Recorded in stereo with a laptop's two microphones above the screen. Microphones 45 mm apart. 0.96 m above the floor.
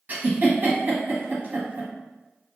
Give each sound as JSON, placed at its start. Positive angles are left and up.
{"t": 0.1, "sound": "a giggle", "side_deg": -45, "distance_m": 0.9}